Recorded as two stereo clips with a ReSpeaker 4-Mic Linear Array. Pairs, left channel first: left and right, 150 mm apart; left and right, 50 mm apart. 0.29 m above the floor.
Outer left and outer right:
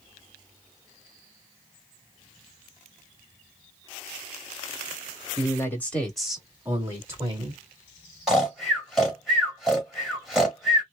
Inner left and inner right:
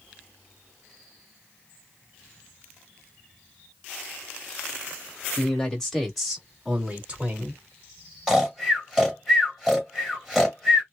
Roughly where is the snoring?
Centre.